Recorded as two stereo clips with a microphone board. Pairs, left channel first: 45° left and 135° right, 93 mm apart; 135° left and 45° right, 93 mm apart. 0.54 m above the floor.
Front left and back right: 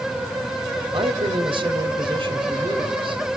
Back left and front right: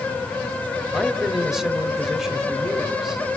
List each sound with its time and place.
0.9 s a man speaking: 130° right, 2.5 m